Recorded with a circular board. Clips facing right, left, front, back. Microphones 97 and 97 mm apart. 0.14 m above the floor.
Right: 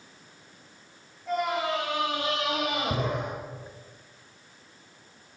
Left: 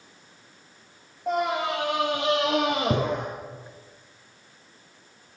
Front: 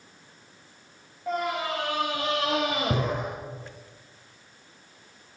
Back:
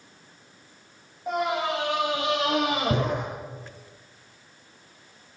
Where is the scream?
100° left, 6.5 m; by 3.3 s 85° left, 4.5 m.